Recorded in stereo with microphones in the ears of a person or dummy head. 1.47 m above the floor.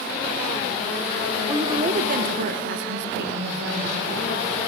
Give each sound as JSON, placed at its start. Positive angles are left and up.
{"t": 1.5, "sound": "a woman speaking", "side_deg": -15, "distance_m": 0.6}